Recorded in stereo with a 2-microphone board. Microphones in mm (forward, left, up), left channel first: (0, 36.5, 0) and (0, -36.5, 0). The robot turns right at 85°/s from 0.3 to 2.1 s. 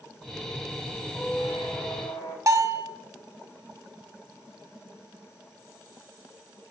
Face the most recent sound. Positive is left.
turn(degrees=-45)  # may be behind; listen again after turning